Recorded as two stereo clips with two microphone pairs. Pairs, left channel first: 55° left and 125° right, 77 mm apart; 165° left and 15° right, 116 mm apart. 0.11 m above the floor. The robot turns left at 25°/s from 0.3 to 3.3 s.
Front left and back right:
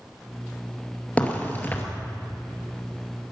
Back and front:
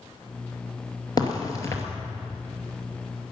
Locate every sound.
1.2 s a crack: 125° left, 2 m; by 1.8 s 110° left, 2 m